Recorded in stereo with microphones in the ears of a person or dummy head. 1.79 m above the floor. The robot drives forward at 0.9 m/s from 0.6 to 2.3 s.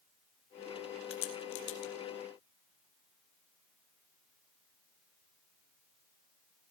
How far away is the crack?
About 3 m.